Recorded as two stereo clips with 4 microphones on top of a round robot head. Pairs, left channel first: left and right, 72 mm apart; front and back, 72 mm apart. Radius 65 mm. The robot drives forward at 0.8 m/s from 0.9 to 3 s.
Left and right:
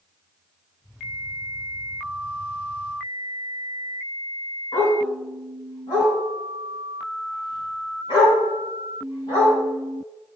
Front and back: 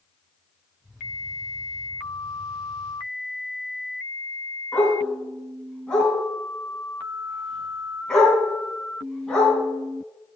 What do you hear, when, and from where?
4.7 s a dog barking: 85° left, 3.5 m